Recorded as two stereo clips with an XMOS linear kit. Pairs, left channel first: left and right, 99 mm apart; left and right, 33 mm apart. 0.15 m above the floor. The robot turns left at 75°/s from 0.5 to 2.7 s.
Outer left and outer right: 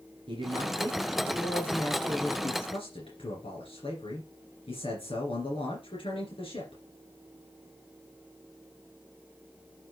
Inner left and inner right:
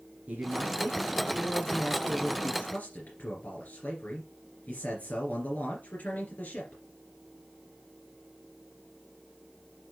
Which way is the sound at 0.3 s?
110° right.